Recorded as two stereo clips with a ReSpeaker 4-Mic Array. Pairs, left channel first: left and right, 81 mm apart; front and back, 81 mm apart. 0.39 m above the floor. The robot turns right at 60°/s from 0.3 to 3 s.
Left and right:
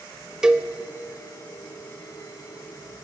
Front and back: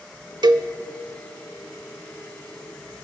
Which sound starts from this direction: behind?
A cowbell, at 0.4 s.